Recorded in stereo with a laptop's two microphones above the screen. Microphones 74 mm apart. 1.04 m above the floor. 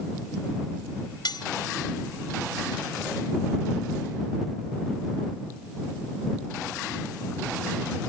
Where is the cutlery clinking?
75° left (ahead or behind).